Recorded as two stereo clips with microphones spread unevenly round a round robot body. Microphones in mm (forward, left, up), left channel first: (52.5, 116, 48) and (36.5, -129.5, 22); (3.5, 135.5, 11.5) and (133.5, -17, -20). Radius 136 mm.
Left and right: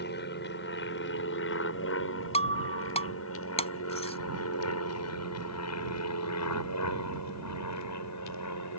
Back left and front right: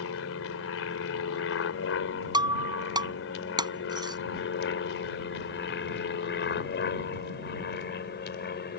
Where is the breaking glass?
20° left.